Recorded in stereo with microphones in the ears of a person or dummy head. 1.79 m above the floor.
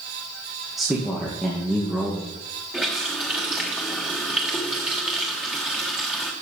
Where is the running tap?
10° right (ahead or behind), 1.1 m.